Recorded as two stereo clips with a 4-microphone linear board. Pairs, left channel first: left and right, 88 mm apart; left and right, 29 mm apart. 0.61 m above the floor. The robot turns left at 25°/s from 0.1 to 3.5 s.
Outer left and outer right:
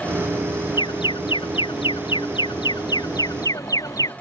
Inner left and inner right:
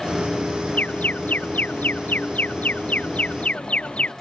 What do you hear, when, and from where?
0.8 s an alarm: 115° left; by 4.1 s 45° left